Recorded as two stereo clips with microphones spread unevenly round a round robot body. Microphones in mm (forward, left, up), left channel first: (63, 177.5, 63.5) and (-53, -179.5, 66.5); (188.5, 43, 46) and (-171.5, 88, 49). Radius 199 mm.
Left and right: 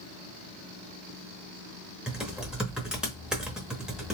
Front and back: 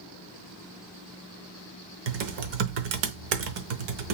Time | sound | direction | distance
2.1 | typing on a keyboard | 165° left | 0.8 m